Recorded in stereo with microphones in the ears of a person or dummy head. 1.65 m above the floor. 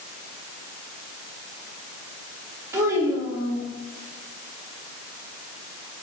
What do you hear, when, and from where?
2.7 s a child speaking: 15° right (ahead or behind), 1.3 m